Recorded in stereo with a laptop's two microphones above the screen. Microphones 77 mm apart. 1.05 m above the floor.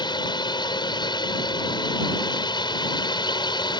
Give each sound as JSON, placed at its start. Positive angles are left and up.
{"t": 0.0, "sound": "a drone", "side_deg": 70}